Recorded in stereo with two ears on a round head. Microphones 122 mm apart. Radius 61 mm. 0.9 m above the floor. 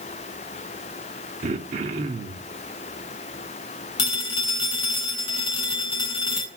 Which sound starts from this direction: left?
A phone ringing, at 4.0 s.